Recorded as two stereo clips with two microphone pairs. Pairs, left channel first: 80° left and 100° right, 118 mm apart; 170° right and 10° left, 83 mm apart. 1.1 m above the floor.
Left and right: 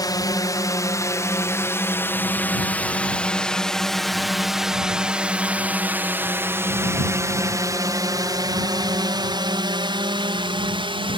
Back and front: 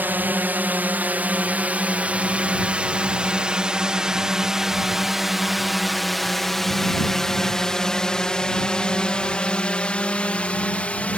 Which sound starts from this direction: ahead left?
A drone, at 0.0 s.